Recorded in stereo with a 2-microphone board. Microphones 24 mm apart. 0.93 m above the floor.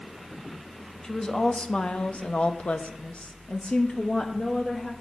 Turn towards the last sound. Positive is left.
turn(degrees=30)  # may be behind; listen again after turning